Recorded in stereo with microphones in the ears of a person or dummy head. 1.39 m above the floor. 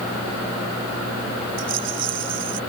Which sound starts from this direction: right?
A rattle, at 1.6 s.